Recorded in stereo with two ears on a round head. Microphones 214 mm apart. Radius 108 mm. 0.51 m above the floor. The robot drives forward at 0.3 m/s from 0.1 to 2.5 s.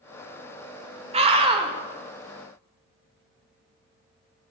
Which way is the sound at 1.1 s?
25° right (ahead or behind).